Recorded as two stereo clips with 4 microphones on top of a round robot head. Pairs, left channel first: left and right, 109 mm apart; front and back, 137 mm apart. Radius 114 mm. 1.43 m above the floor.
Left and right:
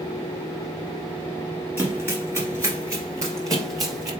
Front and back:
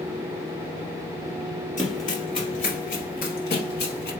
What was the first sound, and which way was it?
Running footsteps, 50° right.